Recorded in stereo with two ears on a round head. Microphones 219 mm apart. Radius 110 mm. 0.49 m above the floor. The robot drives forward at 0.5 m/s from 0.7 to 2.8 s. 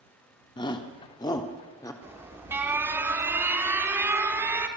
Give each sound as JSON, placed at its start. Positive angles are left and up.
{"t": 0.6, "sound": "a shout", "side_deg": 20, "distance_m": 0.8}
{"t": 2.0, "sound": "an alarm", "side_deg": -10, "distance_m": 1.2}